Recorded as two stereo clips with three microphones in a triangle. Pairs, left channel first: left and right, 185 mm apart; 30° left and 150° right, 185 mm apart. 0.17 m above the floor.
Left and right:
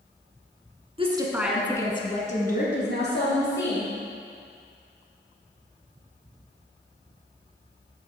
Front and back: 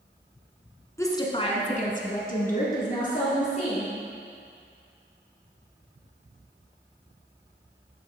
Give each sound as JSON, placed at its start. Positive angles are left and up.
{"t": 1.0, "sound": "a woman speaking", "azimuth_deg": -40, "distance_m": 1.5}